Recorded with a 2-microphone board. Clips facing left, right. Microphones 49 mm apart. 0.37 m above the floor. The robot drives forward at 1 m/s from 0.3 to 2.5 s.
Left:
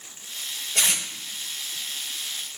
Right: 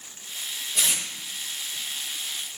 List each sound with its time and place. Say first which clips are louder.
0.8 s tape being pulled: left 3 dB; 80° left, 9.5 m